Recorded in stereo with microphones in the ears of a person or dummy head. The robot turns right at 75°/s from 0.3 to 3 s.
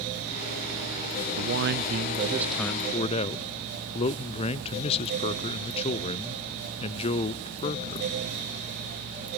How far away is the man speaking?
About 0.6 m.